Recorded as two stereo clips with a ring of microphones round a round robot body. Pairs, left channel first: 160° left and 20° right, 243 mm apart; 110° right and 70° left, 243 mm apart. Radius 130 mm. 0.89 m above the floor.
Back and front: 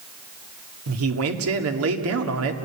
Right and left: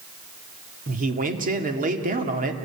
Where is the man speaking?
10° left, 2 m.